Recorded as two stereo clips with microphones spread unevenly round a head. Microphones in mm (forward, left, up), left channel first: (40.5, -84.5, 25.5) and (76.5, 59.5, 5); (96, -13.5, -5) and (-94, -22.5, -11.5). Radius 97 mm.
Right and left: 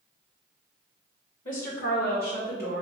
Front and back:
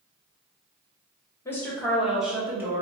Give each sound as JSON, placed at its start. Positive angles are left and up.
{"t": 1.4, "sound": "a woman speaking", "azimuth_deg": -75, "distance_m": 1.3}